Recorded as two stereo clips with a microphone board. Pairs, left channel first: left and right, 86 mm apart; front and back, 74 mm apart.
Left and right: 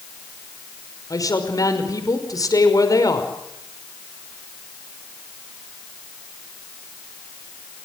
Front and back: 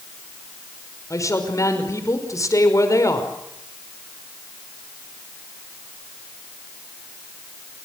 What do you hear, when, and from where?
1.1 s a woman speaking: 45° left, 5.5 m